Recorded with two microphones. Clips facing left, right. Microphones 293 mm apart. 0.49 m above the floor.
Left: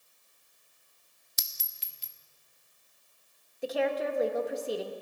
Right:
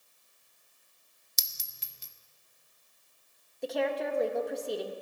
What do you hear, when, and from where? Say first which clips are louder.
1.4 s a clink: right 4 dB; 55° right (ahead or behind), 0.5 m
3.6 s a woman speaking: left 1 dB; centre (ahead or behind), 0.8 m